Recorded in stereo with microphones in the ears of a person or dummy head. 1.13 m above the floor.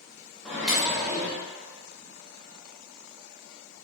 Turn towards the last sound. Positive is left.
turn(degrees=0)  # may be behind; listen again after turning